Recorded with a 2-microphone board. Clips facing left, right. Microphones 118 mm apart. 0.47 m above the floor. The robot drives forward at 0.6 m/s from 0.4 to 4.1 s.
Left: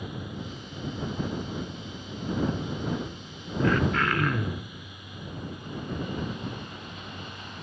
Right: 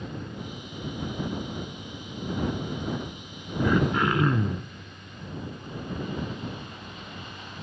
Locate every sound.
3.6 s throat clearing: 15° right (ahead or behind), 0.7 m; by 4.7 s 20° right (ahead or behind), 0.5 m